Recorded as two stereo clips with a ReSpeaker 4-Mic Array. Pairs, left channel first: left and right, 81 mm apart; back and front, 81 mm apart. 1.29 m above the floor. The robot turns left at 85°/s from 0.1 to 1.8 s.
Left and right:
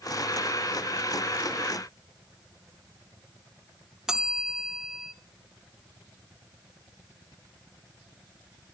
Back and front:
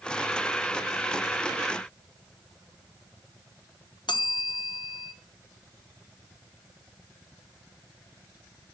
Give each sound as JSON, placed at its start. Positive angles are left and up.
{"t": 4.1, "sound": "a bell", "azimuth_deg": -175, "distance_m": 1.1}